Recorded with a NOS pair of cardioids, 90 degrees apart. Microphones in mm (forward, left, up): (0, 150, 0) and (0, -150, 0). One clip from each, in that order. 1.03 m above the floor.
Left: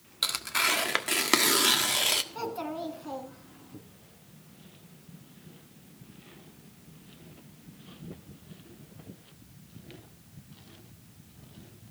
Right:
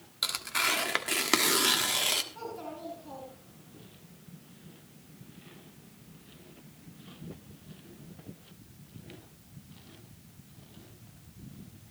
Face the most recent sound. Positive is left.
turn(degrees=60)